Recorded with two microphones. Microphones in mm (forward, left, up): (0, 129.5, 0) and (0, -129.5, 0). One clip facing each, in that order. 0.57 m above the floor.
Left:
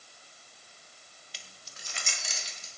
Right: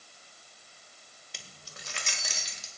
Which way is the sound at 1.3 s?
55° right (ahead or behind).